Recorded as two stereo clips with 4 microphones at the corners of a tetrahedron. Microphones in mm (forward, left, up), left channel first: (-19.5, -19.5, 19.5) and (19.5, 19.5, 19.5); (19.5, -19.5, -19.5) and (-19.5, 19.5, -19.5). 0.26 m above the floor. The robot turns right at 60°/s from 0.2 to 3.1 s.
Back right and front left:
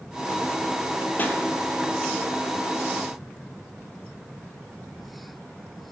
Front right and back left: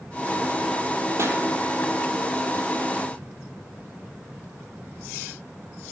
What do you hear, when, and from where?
1.2 s a pop: 170° left, 1.6 m; by 1.4 s straight behind, 1.6 m